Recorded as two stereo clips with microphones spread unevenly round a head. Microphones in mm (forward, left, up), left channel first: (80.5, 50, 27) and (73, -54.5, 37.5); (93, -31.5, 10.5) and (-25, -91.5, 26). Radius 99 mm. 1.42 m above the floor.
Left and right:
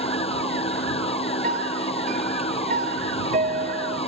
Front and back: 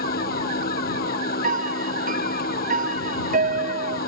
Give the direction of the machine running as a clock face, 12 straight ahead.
10 o'clock.